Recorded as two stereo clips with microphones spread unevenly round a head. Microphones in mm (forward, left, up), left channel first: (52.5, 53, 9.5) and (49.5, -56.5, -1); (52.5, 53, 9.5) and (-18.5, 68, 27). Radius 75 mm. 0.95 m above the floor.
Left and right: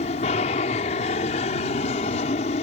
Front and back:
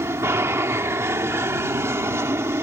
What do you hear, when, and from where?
0.0 s an aircraft: 115° left